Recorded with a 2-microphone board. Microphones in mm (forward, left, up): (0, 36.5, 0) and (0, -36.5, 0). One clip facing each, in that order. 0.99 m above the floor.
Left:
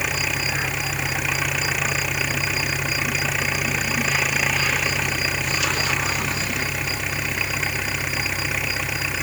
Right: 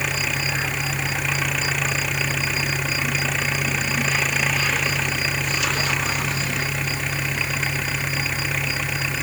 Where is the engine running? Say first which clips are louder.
Even; 5° left (ahead or behind).